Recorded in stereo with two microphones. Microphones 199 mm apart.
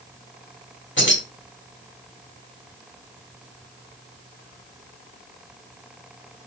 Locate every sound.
1.0 s keys jangling: 75° left (ahead or behind), 1.6 m